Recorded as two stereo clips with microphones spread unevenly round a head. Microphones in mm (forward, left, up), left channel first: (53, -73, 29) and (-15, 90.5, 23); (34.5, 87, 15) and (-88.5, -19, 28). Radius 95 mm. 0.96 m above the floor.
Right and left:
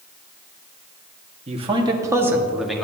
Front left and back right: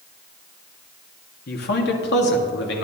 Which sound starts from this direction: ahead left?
A man speaking, at 1.5 s.